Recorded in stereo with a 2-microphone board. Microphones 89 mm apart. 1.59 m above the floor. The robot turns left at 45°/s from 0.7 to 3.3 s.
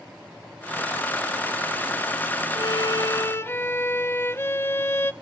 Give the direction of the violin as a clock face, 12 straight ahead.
10 o'clock.